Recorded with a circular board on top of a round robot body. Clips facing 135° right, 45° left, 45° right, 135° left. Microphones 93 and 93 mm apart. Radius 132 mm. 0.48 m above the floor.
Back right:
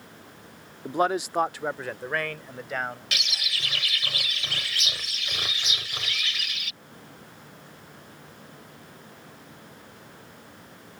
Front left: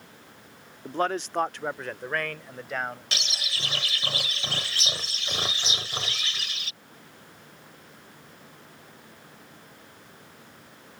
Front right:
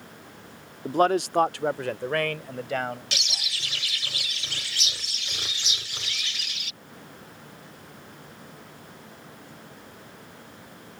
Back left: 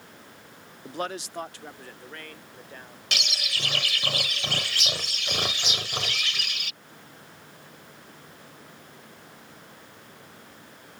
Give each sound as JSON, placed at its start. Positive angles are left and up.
{"t": 0.8, "sound": "a man speaking", "azimuth_deg": -65}
{"t": 3.1, "sound": "a bird", "azimuth_deg": 105}